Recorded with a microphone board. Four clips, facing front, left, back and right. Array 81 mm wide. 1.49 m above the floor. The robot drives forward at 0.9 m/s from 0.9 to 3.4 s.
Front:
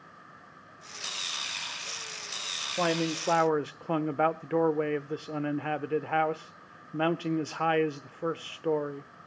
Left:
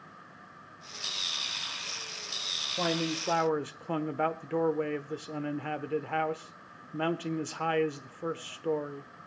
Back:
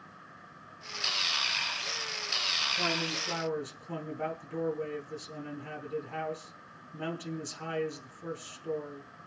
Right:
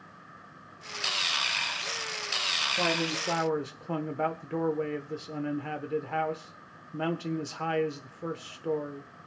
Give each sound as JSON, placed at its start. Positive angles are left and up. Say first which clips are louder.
{"t": 2.8, "sound": "a man speaking", "louder": "even, front 8 dB", "azimuth_deg": 5, "distance_m": 1.7}